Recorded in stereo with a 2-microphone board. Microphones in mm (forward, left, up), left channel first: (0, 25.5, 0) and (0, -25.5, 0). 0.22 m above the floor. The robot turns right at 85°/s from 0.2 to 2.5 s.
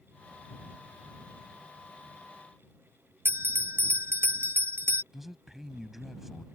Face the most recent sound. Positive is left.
turn(degrees=-5)  # may be behind; listen again after turning